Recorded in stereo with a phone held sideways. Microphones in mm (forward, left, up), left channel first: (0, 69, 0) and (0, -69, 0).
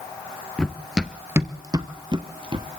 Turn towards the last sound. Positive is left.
turn(degrees=-40)  # may be behind; listen again after turning